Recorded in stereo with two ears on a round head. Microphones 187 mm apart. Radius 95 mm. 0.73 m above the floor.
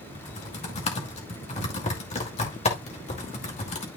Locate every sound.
0.1 s typing on a keyboard: 30° left (ahead or behind), 2.5 m